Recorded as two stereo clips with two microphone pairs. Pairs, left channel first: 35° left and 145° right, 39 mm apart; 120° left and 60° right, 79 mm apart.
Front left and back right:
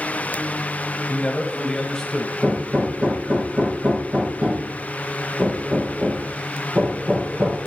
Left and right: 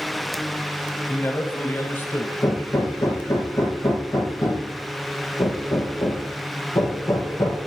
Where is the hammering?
165° left, 5.5 m.